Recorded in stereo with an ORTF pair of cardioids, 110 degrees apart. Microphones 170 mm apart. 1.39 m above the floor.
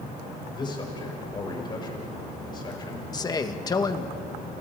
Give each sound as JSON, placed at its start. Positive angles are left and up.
{"t": 0.5, "sound": "a man speaking", "azimuth_deg": 30, "distance_m": 6.0}
{"t": 3.1, "sound": "a man speaking", "azimuth_deg": 25, "distance_m": 1.9}